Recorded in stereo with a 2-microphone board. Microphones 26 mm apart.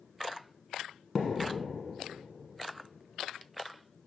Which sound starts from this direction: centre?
A thud, at 1.1 s.